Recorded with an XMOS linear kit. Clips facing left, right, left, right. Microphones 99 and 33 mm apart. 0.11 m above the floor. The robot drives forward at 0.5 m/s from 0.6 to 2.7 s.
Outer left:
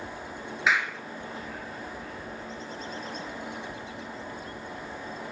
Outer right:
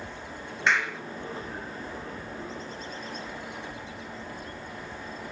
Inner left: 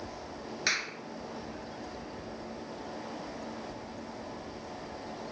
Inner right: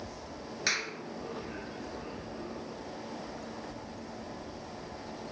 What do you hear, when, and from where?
0.7 s a clap: 5° left (ahead or behind), 1.5 m